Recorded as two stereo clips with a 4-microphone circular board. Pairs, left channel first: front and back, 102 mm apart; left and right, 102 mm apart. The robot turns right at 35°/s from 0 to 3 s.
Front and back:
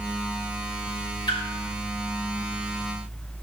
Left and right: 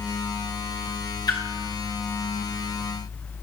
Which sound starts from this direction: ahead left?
A splash, at 1.3 s.